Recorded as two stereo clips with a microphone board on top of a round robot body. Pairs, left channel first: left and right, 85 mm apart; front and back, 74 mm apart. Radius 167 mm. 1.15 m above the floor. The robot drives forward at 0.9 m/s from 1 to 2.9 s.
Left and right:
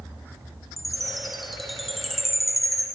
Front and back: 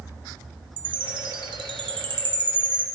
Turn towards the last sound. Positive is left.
turn(degrees=180)